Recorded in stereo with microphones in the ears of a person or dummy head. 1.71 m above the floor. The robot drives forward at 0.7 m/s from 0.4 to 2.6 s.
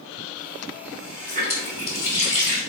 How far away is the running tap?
About 2 m.